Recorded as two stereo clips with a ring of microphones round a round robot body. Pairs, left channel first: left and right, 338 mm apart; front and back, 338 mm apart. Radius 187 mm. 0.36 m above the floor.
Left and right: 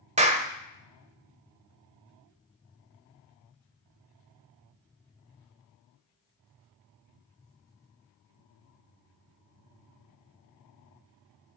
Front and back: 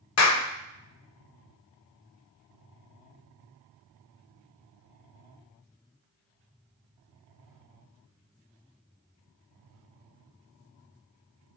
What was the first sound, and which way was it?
A clap, 25° right.